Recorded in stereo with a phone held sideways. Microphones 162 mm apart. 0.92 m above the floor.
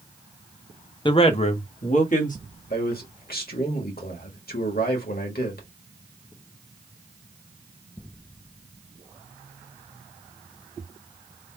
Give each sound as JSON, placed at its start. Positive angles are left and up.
{"t": 1.1, "sound": "a man speaking", "side_deg": 30, "distance_m": 0.6}
{"t": 2.7, "sound": "a man speaking", "side_deg": 70, "distance_m": 1.4}